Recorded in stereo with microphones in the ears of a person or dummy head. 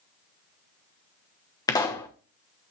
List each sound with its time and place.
1.7 s a pop: 20° left (ahead or behind), 1.2 m